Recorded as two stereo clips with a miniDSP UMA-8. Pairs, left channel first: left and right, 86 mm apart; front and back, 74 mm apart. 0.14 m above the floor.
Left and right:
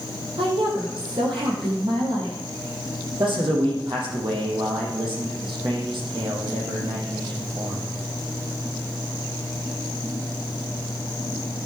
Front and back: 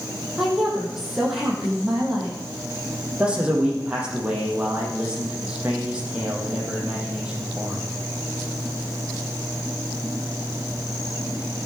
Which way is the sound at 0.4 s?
95° right.